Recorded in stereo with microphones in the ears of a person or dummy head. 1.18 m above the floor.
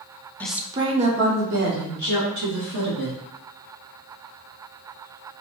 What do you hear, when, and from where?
0.4 s a woman speaking: 5° left (ahead or behind), 0.6 m; by 3.2 s 75° right (ahead or behind), 2.5 m